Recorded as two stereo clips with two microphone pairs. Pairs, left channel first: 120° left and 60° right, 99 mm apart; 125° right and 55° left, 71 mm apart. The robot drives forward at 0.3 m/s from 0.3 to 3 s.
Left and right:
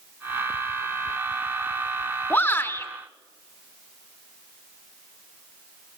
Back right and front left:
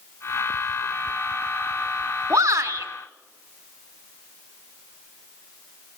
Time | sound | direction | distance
2.3 | a shout | 70° left | 1.4 m